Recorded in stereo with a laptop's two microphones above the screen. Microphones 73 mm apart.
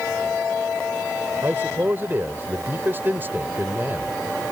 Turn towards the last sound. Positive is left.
turn(degrees=-30)  # may be behind; listen again after turning